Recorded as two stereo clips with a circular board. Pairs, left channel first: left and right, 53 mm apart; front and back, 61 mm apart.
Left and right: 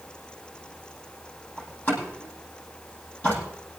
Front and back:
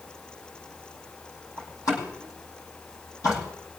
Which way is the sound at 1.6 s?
30° left.